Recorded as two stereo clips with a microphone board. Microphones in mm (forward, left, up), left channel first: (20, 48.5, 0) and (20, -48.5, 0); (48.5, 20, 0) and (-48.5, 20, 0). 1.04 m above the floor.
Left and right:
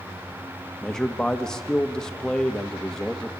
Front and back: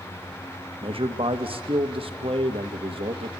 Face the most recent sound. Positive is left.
turn(degrees=175)